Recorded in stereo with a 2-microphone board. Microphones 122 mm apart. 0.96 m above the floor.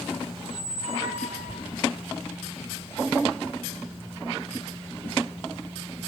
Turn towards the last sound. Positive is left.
turn(degrees=-70)  # may be behind; listen again after turning